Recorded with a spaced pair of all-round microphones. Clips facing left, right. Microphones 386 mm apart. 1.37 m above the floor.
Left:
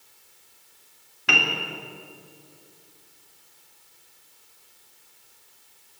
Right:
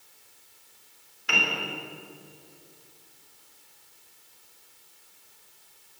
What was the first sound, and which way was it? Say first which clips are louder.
A piano: left 3 dB; 80° left.